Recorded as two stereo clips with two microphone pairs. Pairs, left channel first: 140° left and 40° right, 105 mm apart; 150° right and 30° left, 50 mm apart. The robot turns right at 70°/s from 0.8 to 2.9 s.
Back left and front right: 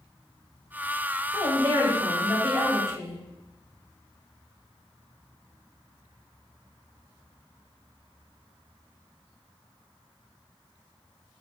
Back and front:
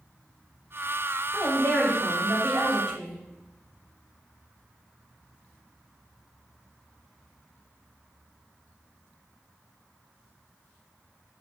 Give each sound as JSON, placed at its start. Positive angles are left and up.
{"t": 1.3, "sound": "a woman speaking", "azimuth_deg": -25, "distance_m": 1.9}